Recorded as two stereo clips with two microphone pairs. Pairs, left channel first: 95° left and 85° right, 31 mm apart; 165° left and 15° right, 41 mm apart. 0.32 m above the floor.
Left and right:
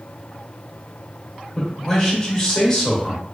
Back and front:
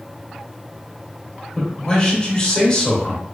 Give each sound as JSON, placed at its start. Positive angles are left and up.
{"t": 1.6, "sound": "a man speaking", "azimuth_deg": 145, "distance_m": 0.9}